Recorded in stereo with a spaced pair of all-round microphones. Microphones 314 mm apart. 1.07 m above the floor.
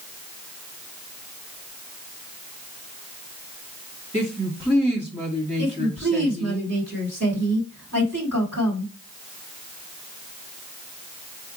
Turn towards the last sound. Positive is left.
turn(degrees=-55)  # may be behind; listen again after turning